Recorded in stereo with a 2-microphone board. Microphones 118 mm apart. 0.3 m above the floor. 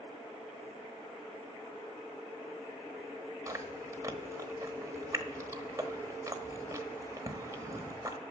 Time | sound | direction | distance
3.5 | chewing | 25° right (ahead or behind) | 1.1 m